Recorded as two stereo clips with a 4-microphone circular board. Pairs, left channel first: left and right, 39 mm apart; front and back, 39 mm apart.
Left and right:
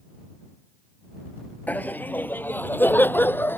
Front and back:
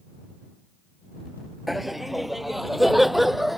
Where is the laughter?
95° left.